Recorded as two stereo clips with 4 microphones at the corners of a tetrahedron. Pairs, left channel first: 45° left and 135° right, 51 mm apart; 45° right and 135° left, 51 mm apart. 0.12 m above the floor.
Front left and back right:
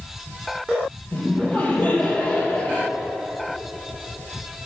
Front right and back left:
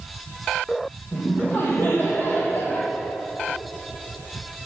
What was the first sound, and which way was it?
Laughter, 5° right.